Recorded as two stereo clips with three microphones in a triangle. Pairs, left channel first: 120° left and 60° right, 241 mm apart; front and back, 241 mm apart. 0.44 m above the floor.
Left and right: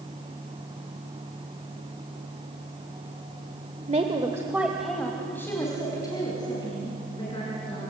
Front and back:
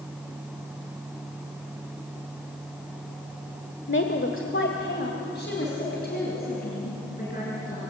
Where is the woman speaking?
10° right, 1.4 m; by 7.9 s 50° left, 6 m.